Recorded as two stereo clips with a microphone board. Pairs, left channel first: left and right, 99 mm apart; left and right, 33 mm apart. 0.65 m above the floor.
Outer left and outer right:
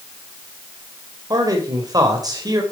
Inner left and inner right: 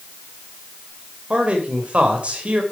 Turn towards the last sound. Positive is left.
turn(degrees=-40)  # may be behind; listen again after turning